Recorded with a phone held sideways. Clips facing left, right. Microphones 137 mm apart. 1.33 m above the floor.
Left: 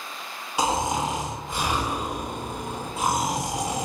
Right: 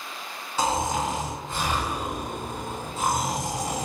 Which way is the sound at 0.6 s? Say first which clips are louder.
Left 1 dB; 15° left (ahead or behind).